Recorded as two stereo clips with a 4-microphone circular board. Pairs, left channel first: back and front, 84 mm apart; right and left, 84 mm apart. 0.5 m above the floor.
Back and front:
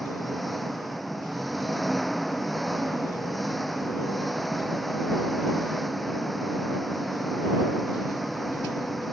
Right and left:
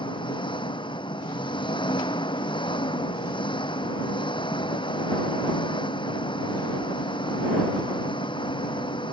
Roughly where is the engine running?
Right.